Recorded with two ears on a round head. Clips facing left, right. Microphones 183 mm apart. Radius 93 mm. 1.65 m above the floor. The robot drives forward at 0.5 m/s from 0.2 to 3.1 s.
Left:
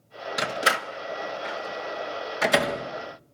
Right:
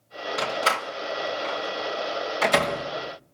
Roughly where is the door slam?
Centre.